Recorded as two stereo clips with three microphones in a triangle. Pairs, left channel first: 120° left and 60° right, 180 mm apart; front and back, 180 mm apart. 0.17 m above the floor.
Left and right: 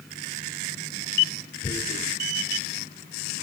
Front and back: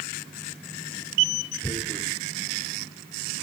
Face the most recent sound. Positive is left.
turn(degrees=70)